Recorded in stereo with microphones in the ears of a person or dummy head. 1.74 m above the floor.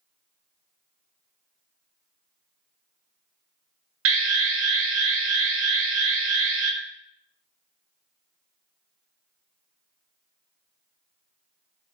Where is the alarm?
75° right (ahead or behind), 1.2 m.